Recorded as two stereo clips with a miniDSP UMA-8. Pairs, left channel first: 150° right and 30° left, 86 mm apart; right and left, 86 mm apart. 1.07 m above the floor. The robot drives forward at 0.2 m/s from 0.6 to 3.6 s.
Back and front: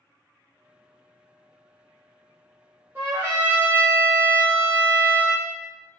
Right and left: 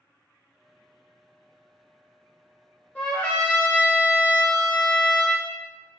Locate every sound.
3.0 s a trumpet: 20° right, 0.7 m; by 5.5 s 30° right, 0.6 m